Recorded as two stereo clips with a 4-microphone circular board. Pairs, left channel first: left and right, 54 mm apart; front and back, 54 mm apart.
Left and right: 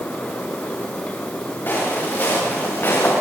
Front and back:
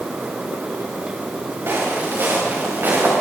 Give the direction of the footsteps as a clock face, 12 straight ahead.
7 o'clock.